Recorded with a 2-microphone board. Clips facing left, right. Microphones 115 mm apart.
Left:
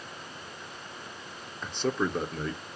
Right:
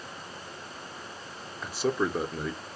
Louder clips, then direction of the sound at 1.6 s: Right 1 dB; 5° right (ahead or behind).